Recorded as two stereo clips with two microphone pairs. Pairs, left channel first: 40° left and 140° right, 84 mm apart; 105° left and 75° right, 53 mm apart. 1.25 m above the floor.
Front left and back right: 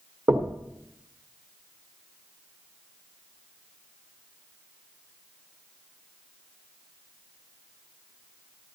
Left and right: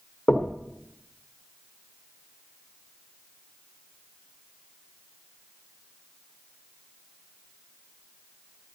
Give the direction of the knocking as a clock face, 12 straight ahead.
6 o'clock.